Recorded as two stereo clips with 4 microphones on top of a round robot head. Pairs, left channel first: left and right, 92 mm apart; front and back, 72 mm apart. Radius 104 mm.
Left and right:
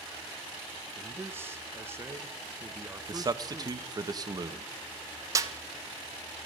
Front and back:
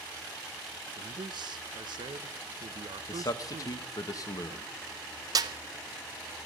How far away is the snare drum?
About 0.8 m.